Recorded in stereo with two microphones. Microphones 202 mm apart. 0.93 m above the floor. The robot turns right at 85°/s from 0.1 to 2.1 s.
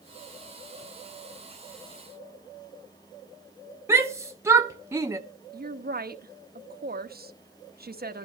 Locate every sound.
3.9 s a shout: 15° right (ahead or behind), 0.7 m
5.5 s a woman speaking: 45° right (ahead or behind), 0.9 m